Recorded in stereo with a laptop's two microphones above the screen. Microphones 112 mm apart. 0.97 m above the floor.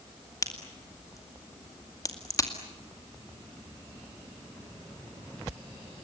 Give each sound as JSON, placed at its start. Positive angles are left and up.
{"t": 0.4, "sound": "a crack", "side_deg": 30, "distance_m": 2.0}